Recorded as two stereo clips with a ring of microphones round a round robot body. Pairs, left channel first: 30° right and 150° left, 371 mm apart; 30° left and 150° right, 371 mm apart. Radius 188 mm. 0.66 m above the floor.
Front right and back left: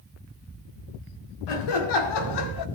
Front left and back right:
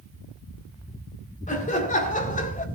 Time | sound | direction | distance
1.5 | laughter | 40° right | 3 m